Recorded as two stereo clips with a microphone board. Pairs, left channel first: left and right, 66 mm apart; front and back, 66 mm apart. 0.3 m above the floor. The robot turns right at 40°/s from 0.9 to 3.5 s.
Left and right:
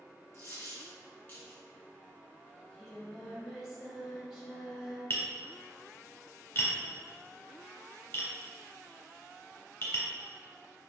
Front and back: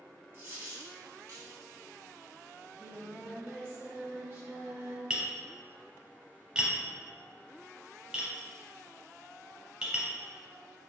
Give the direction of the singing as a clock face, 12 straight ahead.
7 o'clock.